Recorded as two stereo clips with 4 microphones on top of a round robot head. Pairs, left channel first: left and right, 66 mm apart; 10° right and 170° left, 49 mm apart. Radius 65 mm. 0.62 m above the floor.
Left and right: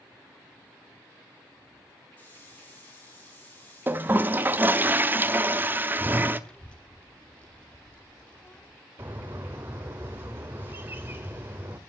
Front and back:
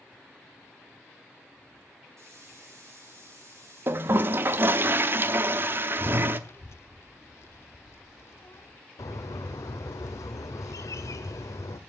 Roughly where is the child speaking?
Ahead.